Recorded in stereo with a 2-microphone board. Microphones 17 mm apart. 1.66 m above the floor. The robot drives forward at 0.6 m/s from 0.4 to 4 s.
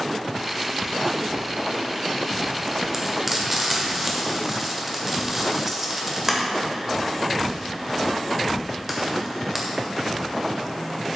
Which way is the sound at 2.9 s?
15° right (ahead or behind).